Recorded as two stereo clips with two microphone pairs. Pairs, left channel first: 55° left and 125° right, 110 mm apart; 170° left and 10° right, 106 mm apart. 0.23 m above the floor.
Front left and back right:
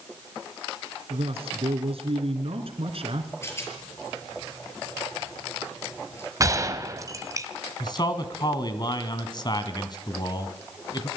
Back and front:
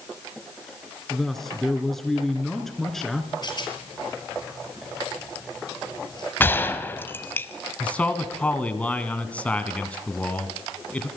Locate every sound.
1.1 s a man speaking: 105° right, 3 m
3.4 s a rattle: 120° left, 6.5 m
6.4 s a gunshot: 140° right, 1.5 m
7.8 s a man speaking: 95° left, 2 m